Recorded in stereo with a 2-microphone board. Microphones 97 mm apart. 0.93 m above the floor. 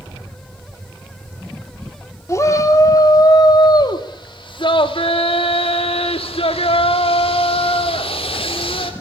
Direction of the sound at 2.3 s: 30° left (ahead or behind).